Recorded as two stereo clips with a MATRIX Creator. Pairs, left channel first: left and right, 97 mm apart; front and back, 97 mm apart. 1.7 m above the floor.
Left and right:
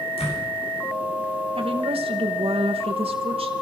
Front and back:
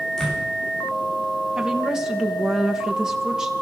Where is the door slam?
85° left, 8.5 m.